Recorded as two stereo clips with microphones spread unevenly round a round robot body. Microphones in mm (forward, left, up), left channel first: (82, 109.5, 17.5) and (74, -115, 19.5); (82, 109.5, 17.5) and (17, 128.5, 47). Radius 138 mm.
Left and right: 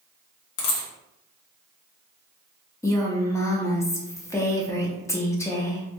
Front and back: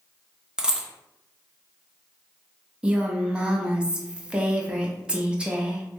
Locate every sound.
0.6 s a dropped coin: 95° left, 0.6 m
2.8 s a woman speaking: 40° left, 0.6 m